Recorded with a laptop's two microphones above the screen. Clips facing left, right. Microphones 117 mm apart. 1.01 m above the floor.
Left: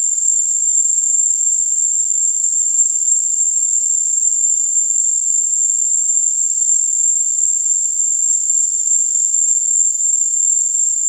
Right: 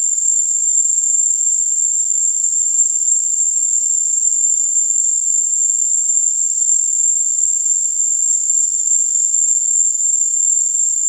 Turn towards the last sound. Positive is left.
turn(degrees=-5)  # may be behind; listen again after turning